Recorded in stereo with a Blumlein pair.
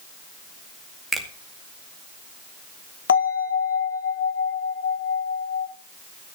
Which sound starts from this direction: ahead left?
A bell, at 3.1 s.